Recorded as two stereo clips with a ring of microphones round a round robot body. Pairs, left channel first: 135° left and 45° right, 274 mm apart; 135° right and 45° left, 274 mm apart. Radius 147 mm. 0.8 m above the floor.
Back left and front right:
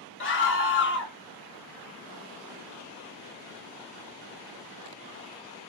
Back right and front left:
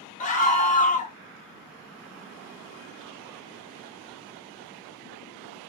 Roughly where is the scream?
Behind.